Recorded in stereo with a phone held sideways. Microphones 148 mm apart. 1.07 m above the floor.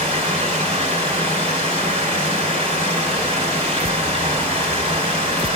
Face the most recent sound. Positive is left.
turn(degrees=-40)  # may be behind; listen again after turning